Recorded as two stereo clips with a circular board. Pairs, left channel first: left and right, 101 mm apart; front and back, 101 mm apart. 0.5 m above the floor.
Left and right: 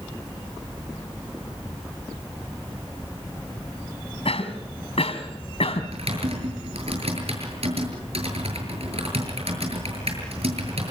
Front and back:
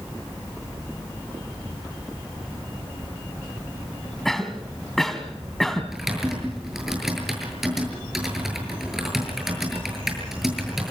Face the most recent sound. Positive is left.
turn(degrees=-95)